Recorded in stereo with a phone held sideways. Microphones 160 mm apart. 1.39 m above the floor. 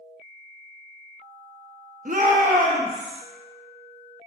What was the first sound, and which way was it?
A shout, 60° right (ahead or behind).